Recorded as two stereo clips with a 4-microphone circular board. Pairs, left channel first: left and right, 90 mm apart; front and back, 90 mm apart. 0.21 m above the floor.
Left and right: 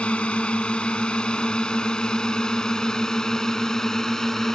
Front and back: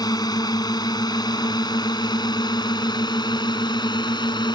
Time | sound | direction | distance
0.0 | a drone | 15° left | ?